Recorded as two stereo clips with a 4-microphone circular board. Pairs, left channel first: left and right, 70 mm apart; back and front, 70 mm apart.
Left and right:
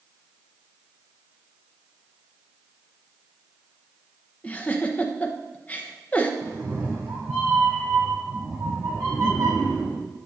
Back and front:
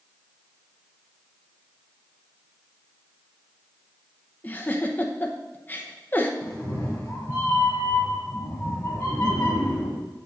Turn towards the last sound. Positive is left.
turn(degrees=-120)